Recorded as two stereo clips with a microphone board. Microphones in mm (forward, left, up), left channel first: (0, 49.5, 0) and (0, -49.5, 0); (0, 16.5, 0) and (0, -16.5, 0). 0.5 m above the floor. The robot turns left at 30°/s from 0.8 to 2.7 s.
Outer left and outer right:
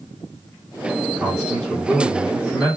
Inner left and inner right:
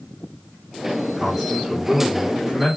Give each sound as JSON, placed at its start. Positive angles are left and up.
{"t": 1.2, "sound": "a man speaking", "azimuth_deg": -175, "distance_m": 1.5}